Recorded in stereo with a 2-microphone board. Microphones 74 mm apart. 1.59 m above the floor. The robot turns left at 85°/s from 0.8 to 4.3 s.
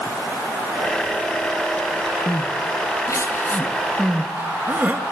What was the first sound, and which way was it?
Crying, 25° left (ahead or behind).